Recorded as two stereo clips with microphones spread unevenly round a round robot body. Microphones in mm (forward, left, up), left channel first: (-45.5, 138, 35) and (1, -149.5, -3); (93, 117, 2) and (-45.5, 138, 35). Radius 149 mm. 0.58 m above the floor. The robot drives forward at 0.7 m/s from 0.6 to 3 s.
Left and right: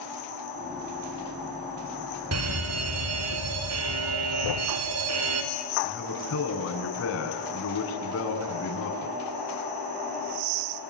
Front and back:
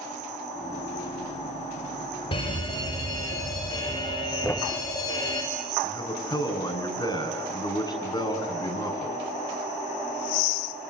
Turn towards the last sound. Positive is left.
turn(degrees=50)